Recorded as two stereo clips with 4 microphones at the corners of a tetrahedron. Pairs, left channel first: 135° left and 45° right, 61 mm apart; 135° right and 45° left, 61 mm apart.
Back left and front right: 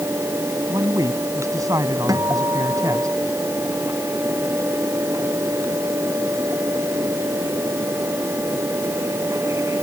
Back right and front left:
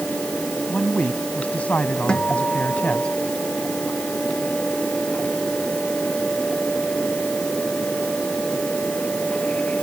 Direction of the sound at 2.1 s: 60° right.